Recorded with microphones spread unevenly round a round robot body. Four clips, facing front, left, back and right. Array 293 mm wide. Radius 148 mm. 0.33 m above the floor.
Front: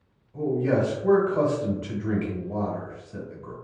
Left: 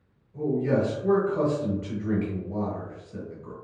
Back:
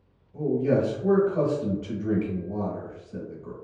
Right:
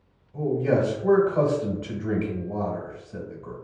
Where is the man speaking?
100° right, 1.1 m.